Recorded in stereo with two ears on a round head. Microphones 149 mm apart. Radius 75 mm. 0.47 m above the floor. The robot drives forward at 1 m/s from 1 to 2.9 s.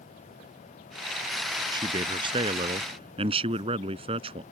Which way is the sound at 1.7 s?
25° right (ahead or behind).